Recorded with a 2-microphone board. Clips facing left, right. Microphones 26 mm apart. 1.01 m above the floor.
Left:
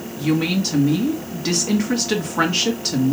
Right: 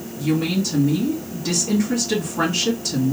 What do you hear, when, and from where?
0.2 s a woman speaking: 45° left (ahead or behind), 1.4 m